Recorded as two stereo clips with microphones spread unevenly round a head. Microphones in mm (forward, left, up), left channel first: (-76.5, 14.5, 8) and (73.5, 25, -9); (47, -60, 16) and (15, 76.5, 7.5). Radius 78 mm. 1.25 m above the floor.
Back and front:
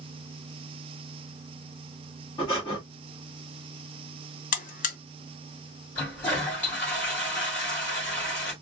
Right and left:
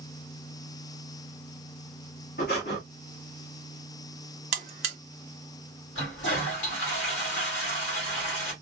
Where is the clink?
No clink in this recording.